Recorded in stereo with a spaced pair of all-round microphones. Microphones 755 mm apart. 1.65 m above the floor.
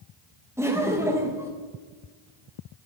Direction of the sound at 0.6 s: 5° right (ahead or behind).